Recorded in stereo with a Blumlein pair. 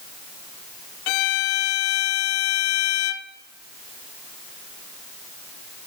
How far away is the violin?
About 1.2 m.